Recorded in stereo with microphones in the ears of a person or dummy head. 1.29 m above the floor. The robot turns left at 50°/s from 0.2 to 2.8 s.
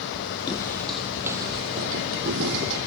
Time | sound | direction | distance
0.5 | footsteps | 20° left (ahead or behind) | 2 m